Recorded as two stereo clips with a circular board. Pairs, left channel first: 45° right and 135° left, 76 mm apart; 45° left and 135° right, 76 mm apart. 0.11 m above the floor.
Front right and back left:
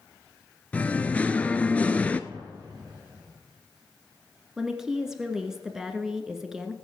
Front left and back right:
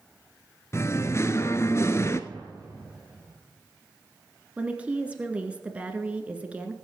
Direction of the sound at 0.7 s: 20° left.